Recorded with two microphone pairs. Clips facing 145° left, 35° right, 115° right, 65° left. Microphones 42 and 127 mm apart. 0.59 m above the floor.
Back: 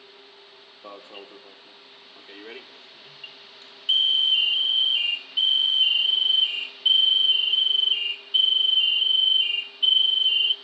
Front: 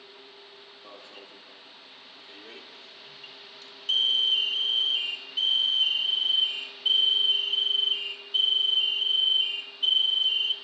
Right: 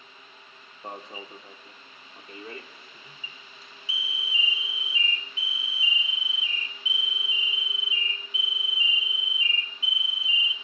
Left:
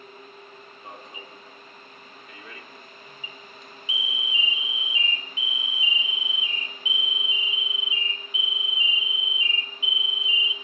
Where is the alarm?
165° right, 1.0 m.